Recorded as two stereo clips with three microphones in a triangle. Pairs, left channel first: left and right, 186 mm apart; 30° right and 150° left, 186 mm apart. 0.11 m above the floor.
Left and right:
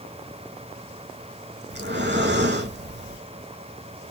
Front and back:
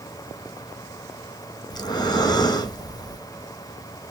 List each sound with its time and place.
1.7 s breathing: 100° right, 0.8 m